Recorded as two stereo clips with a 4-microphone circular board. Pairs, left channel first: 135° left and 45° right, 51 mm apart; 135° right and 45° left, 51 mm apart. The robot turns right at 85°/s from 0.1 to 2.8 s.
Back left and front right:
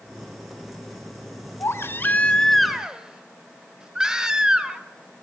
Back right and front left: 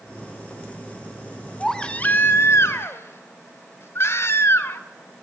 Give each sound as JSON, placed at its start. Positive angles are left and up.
{"t": 1.6, "sound": "a baby crying", "azimuth_deg": 140, "distance_m": 1.4}